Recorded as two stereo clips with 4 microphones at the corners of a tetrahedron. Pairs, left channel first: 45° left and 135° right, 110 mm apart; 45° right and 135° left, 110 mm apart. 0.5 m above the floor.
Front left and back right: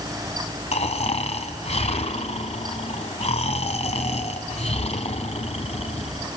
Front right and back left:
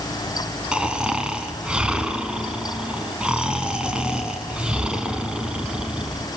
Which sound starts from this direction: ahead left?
Snoring, at 0.7 s.